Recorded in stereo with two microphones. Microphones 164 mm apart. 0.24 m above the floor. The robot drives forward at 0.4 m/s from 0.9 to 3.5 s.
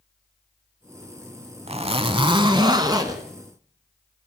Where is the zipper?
40° right (ahead or behind), 0.7 m; by 3.2 s 20° right (ahead or behind), 1.1 m.